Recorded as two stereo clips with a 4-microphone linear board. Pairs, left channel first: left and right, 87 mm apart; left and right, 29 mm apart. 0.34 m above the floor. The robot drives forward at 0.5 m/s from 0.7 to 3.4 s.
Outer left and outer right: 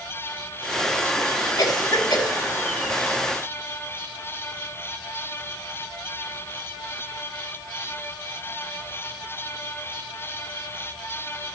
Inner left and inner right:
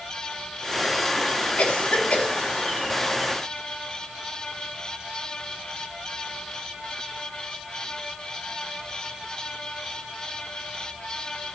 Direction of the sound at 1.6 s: 60° left (ahead or behind).